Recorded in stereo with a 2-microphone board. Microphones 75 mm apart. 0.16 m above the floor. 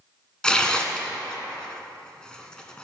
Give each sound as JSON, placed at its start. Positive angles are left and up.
{"t": 0.4, "sound": "tearing paper", "side_deg": 10, "distance_m": 1.1}